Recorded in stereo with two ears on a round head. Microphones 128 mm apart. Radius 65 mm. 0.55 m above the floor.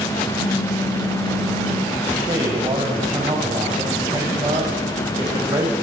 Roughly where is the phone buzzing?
Left.